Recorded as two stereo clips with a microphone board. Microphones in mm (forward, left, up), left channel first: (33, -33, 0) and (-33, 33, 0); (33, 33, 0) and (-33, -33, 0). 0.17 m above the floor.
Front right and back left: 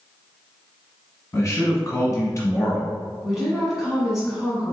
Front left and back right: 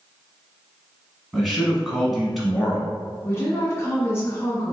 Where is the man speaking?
50° right, 1.3 m.